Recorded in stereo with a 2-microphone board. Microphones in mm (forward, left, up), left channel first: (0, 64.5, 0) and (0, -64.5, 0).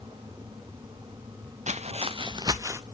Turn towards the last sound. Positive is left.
turn(degrees=-20)  # may be behind; listen again after turning